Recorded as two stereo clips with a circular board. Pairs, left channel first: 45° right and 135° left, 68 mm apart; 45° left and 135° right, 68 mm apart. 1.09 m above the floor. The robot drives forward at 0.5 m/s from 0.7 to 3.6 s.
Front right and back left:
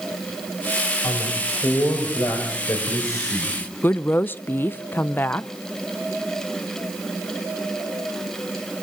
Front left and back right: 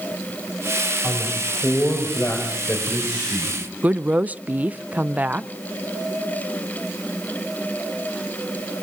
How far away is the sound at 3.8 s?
About 0.6 m.